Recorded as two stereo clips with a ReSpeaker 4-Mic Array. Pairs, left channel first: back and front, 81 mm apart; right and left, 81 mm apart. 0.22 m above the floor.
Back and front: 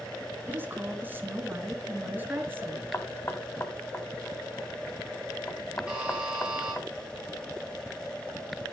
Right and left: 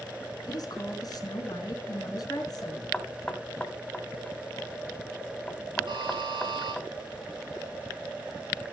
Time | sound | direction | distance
0.5 | a woman speaking | 60° right | 3.5 m
2.9 | knocking | 150° right | 1.5 m
5.9 | a buzzer | 80° left | 4 m